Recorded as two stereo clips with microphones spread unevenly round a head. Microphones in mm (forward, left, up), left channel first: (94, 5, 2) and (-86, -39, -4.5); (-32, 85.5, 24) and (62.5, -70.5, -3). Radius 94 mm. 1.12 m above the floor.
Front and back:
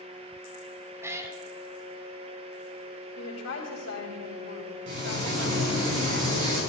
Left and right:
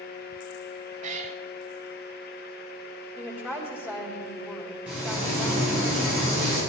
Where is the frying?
145° right, 7 m.